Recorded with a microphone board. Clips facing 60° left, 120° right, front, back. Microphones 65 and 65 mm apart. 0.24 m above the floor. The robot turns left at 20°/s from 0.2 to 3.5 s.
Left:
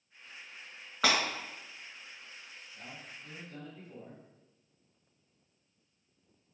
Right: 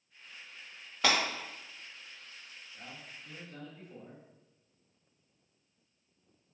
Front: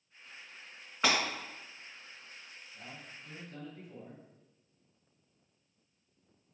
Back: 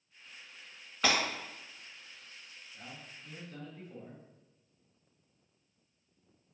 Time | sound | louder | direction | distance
1.0 | breaking glass | even, even | 65° left | 1.8 m
2.7 | a man speaking | left 1 dB, even | 90° left | 1.2 m